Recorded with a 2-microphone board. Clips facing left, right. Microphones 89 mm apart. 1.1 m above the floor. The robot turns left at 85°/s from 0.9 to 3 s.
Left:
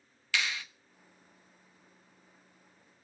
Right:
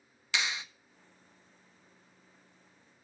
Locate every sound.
0.3 s a clap: 20° right (ahead or behind), 1.2 m